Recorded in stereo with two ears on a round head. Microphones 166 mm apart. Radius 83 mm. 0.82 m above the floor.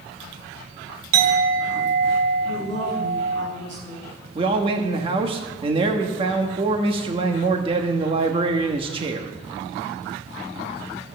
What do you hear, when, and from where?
1.1 s a clink: 80° right, 2.5 m
2.5 s a woman speaking: 65° right (ahead or behind), 6 m
4.3 s a man speaking: 30° right (ahead or behind), 1.1 m